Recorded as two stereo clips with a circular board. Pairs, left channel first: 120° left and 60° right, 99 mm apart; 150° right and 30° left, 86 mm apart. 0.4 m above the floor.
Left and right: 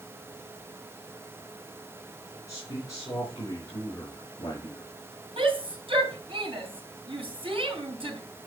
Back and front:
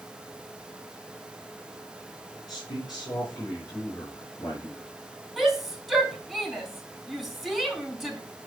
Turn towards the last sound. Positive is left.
turn(degrees=-55)